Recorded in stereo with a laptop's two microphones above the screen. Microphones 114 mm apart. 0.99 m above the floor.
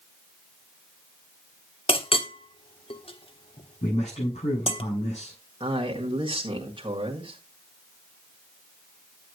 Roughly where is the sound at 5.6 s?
Right.